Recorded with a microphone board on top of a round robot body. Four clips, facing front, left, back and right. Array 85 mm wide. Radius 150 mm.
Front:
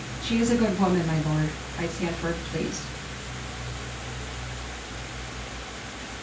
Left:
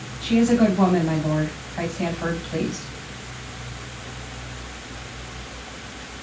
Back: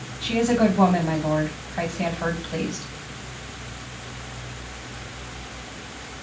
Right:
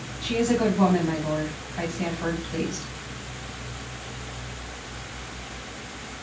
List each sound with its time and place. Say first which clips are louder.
0.2 s a woman speaking: left 5 dB, back 3 dB; 155° left, 3.5 m